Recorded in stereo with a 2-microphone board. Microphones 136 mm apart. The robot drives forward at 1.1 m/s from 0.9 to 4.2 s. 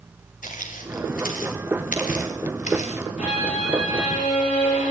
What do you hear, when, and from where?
0.4 s footsteps: 80° left, 5 m; by 3.1 s 55° left (ahead or behind), 4 m
3.2 s a violin: 60° left (ahead or behind), 7.5 m; by 4.9 s 50° left (ahead or behind), 8.5 m